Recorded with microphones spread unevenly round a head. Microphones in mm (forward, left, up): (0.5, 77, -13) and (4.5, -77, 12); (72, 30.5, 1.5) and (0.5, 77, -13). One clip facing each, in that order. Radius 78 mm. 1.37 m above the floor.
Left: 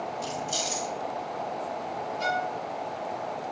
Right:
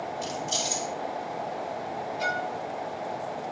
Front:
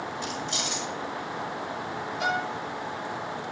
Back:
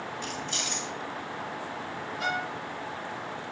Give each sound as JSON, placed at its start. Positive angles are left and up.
{"t": 0.2, "sound": "keys jangling", "azimuth_deg": -100, "distance_m": 3.0}
{"t": 2.2, "sound": "a violin", "azimuth_deg": -90, "distance_m": 2.0}